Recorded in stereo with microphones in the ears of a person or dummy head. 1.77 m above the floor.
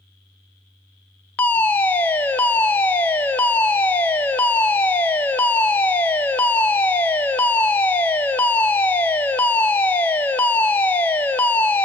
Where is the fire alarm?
5° left (ahead or behind), 0.9 m.